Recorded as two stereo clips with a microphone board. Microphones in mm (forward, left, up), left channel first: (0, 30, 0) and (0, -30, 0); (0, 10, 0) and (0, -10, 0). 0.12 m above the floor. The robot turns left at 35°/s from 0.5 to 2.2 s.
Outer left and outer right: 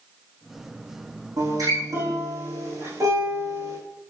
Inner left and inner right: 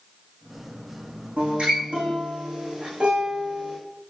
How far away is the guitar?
About 8.5 m.